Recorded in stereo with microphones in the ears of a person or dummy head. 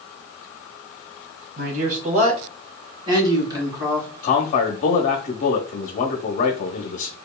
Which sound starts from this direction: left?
A man speaking, at 4.2 s.